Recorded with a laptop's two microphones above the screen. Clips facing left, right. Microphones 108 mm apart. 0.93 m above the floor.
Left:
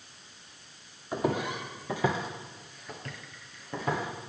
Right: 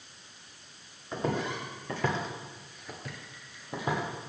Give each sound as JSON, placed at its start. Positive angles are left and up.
{"t": 1.1, "sound": "footsteps", "side_deg": 10, "distance_m": 2.0}